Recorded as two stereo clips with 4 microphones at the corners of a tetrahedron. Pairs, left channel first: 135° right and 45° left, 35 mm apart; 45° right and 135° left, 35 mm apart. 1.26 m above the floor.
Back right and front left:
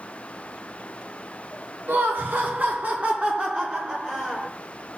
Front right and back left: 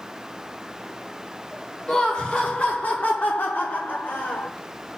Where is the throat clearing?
No throat clearing in this recording.